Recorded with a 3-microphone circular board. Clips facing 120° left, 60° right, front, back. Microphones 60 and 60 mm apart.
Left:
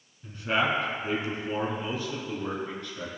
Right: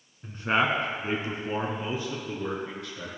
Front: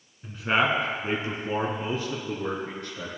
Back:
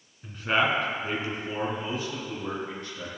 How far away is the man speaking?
About 1.3 m.